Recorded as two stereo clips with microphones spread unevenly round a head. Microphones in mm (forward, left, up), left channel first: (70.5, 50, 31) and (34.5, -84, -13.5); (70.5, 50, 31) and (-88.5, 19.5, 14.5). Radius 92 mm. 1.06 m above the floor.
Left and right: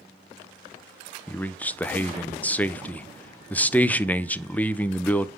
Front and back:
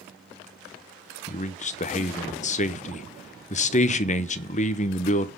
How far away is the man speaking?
About 0.7 m.